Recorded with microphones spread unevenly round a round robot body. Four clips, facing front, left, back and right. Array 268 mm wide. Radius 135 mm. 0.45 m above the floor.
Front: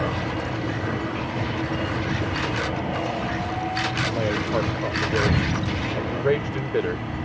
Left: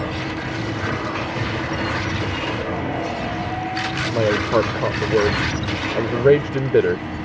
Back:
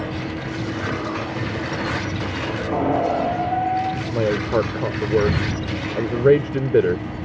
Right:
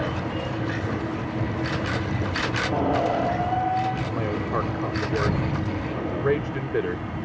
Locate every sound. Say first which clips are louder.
2.7 s a squeak: right 2 dB, back 7 dB; 160° right
4.1 s a man speaking: left 8 dB, back 6 dB; 135° left